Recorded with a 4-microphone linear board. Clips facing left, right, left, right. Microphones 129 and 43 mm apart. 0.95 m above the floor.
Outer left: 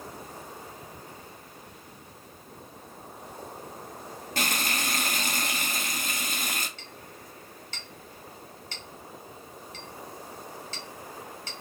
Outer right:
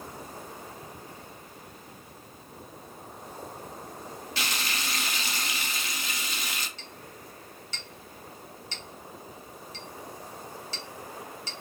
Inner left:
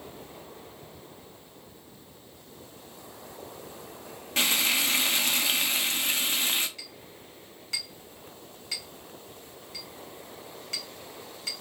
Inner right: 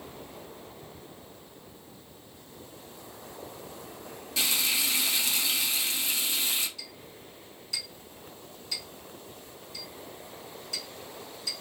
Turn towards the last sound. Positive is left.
turn(degrees=55)  # may be behind; listen again after turning